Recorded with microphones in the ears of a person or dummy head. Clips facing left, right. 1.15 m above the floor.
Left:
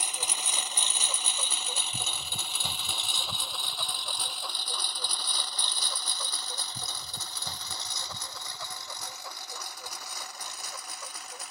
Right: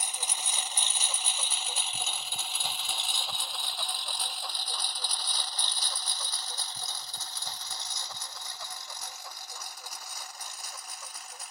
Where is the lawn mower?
60° left (ahead or behind); by 11.5 s 65° left (ahead or behind).